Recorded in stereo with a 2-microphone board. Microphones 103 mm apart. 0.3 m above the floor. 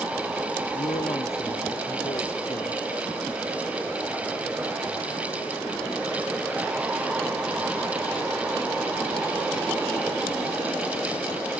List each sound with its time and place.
0.8 s a man speaking: 65° left (ahead or behind)